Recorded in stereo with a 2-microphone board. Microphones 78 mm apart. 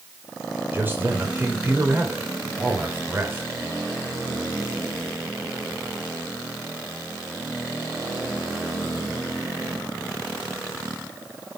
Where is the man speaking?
25° right (ahead or behind), 3 m.